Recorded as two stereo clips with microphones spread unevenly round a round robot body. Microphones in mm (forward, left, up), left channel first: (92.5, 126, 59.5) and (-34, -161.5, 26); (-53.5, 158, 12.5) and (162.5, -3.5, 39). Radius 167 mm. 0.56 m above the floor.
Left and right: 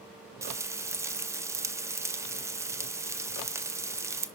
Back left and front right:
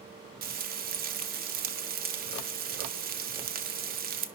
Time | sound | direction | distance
0.4 | frying | 55° right | 0.5 m